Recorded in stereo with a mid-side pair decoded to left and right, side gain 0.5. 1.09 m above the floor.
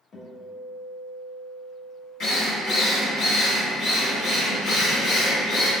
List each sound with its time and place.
0.1 s a guitar: 50° left, 1.9 m
2.2 s a drill: 65° left, 1.4 m